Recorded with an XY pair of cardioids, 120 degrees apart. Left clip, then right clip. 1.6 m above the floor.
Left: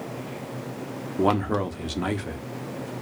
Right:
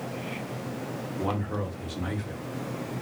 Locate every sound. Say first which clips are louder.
1.2 s a man speaking: left 9 dB; 55° left, 0.7 m